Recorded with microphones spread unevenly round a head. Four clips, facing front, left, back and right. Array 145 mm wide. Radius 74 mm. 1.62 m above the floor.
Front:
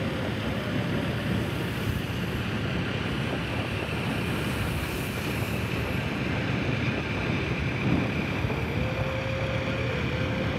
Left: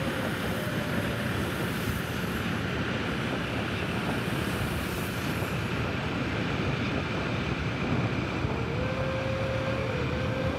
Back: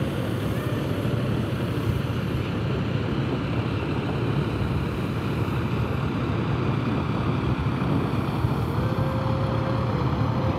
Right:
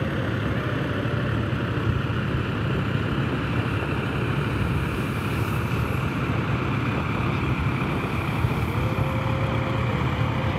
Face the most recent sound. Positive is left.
turn(degrees=-145)